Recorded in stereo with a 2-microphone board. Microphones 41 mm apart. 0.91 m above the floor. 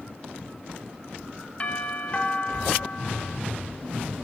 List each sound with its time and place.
1.6 s a doorbell: 30° left (ahead or behind), 2 m